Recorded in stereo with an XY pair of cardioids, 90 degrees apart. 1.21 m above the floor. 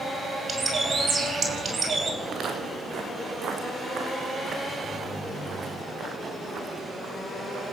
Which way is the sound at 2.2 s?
65° right.